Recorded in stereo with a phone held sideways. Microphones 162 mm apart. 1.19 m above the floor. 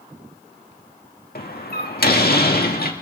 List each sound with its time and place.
1.4 s a door slam: 70° left (ahead or behind), 1.8 m